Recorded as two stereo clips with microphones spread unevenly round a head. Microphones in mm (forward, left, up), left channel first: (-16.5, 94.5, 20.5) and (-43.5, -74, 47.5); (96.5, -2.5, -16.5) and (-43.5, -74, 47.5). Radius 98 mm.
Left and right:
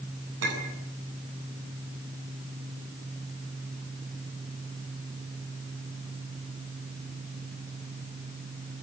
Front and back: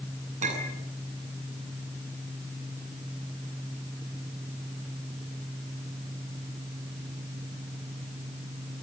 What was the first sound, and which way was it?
A clink, 110° right.